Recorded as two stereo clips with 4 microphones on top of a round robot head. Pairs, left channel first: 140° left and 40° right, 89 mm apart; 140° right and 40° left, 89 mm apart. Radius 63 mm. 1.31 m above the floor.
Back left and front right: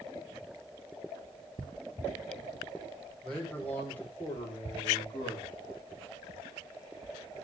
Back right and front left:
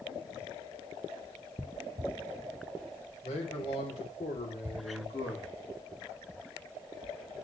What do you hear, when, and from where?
3.2 s a man speaking: 140° right, 5.5 m; by 5.5 s 175° right, 3.5 m